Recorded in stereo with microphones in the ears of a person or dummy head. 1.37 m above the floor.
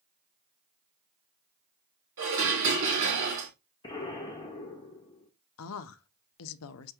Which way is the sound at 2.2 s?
70° right (ahead or behind).